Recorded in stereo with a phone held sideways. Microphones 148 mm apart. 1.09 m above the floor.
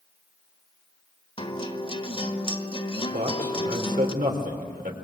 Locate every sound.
1.4 s a guitar: 40° left (ahead or behind), 1.5 m
3.1 s a man speaking: 75° right (ahead or behind), 4 m